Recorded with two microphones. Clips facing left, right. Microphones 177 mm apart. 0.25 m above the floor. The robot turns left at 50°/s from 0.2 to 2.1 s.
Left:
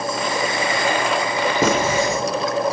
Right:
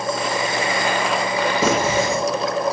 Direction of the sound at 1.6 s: 55° left (ahead or behind).